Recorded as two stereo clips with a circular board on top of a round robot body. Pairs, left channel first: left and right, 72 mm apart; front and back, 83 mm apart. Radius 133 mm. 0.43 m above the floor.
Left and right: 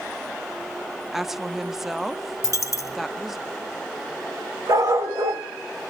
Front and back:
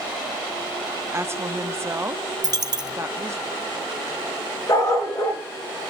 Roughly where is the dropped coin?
Behind left.